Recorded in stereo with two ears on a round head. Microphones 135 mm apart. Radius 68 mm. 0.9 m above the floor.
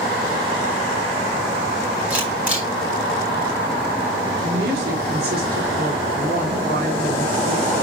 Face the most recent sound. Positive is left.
turn(degrees=-75)  # may be behind; listen again after turning